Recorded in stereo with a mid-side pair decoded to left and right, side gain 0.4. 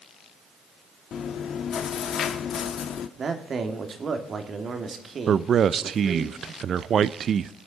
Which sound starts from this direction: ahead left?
Chewing, at 1.1 s.